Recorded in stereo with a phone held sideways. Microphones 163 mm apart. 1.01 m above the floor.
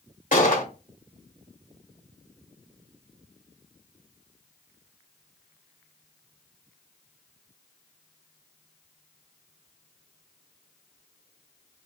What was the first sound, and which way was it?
A gunshot, 55° left (ahead or behind).